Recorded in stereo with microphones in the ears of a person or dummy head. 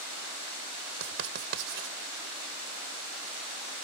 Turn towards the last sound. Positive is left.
turn(degrees=-65)  # may be behind; listen again after turning